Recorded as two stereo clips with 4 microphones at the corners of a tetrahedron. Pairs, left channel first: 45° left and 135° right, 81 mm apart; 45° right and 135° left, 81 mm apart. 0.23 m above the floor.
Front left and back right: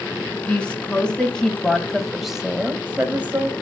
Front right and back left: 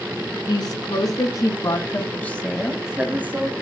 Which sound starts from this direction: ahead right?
A woman speaking, at 0.5 s.